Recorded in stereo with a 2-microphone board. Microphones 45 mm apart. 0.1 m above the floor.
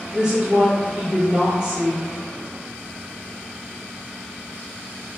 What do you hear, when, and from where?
0.1 s a woman speaking: 15° right (ahead or behind), 1.7 m